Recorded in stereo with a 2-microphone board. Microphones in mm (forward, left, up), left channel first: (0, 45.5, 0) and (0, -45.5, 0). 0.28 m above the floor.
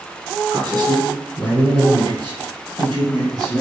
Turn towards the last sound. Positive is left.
turn(degrees=-50)  # may be behind; listen again after turning